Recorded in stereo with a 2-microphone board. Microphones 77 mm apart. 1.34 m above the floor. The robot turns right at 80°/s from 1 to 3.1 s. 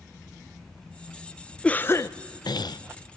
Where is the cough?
15° left, 0.5 m; by 2.8 s 105° left, 0.5 m.